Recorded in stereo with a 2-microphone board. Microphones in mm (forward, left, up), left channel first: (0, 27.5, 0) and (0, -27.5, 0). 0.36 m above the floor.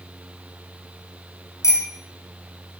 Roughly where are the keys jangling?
No keys jangling in this recording.